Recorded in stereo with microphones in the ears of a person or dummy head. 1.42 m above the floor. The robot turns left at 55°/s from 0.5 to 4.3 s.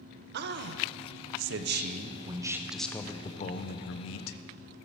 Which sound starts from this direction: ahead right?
A man speaking, at 0.3 s.